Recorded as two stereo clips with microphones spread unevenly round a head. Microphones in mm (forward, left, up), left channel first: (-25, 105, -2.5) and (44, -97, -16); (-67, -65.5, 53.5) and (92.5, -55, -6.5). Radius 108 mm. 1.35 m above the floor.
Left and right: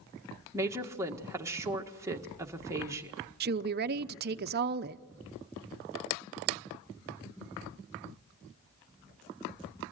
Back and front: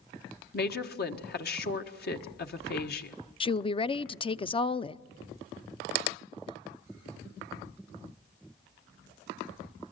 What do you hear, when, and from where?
0.5 s a woman speaking: 150° right, 1.6 m
3.4 s a woman speaking: 105° right, 0.7 m